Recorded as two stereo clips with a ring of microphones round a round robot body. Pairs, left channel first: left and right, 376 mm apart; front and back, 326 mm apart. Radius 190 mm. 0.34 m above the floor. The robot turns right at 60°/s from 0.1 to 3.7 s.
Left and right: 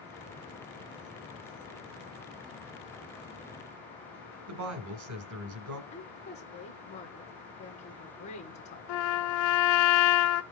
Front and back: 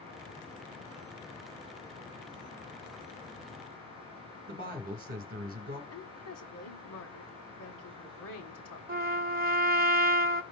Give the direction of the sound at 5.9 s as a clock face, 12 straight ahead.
11 o'clock.